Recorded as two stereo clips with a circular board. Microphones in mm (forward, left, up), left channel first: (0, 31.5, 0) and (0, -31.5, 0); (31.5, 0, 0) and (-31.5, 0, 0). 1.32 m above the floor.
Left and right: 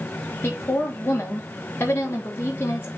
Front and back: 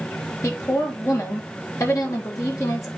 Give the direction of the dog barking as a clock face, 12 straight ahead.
I don't hear a dog barking.